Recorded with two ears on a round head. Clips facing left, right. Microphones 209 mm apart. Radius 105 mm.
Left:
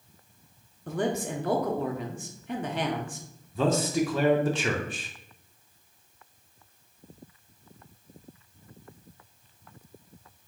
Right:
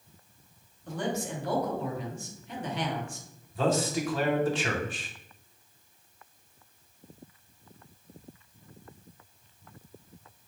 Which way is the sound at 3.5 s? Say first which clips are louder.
Left 2 dB; 80° left.